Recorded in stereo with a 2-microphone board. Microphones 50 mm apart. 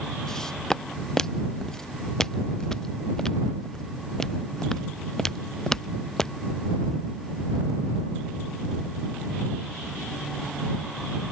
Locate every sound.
0.3 s footsteps: 10° left (ahead or behind)